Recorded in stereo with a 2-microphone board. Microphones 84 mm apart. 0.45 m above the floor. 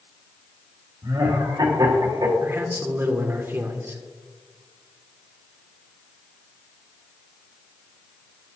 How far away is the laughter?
About 1.8 m.